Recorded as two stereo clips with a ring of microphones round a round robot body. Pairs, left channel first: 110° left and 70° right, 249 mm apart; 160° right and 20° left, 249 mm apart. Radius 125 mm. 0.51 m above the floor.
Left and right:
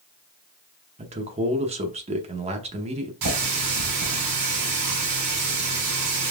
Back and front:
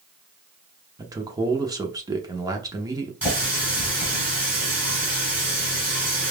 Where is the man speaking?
40° right, 0.8 m.